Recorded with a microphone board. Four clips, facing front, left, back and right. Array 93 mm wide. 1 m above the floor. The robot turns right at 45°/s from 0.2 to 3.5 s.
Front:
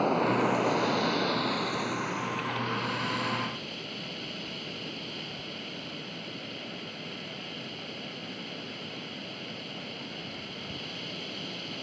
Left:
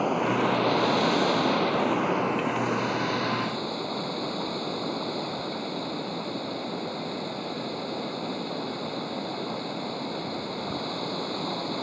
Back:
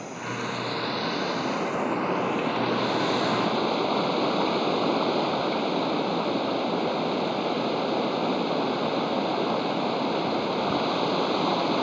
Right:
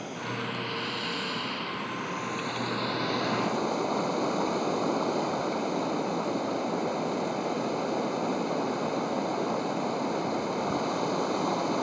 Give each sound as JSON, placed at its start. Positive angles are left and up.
{"t": 0.0, "sound": "running water", "azimuth_deg": 50}